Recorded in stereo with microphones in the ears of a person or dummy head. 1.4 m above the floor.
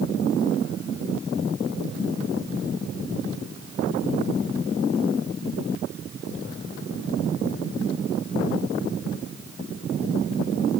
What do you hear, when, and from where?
Only background noise.